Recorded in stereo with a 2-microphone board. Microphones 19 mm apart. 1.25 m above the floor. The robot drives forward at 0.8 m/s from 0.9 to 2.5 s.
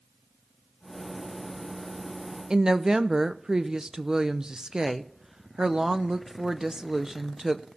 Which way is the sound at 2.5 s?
35° right (ahead or behind).